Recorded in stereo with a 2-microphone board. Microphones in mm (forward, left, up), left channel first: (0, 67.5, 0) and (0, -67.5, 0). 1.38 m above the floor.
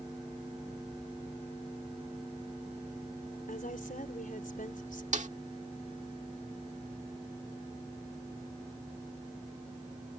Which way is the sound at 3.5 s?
85° left.